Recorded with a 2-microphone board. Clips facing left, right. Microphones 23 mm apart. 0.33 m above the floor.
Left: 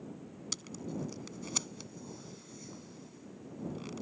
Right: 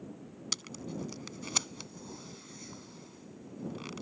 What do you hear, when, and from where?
0.5 s tape being pulled: 30° right (ahead or behind)